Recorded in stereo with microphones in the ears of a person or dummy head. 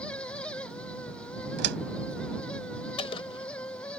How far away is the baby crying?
No baby crying in this recording.